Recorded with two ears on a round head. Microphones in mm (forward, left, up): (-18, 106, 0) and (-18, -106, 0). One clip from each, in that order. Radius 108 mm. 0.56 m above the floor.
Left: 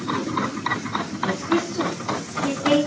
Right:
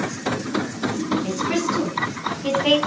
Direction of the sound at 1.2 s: 60° right (ahead or behind).